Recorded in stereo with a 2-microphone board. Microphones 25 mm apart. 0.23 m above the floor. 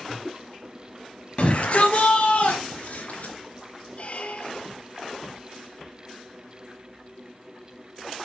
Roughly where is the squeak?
Left.